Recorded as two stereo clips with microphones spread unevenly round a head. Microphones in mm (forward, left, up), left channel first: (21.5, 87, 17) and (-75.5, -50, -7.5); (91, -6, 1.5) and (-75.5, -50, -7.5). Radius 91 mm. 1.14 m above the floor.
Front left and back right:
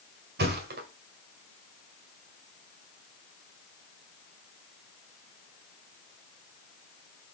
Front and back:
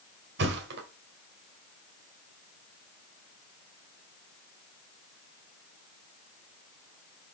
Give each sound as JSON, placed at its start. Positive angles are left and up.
{"t": 0.4, "sound": "a thud", "azimuth_deg": -150, "distance_m": 1.9}